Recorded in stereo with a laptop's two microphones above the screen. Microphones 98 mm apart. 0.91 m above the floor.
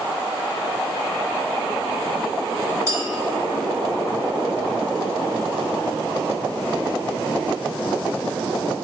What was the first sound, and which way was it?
A clink, 30° right (ahead or behind).